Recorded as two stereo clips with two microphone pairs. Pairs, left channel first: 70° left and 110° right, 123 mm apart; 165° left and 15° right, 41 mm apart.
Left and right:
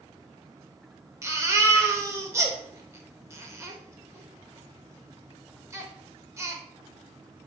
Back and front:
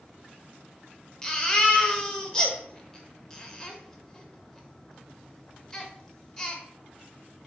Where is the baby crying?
140° right, 0.5 m.